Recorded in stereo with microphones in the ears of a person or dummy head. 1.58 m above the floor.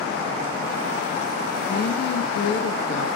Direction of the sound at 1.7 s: 65° left (ahead or behind).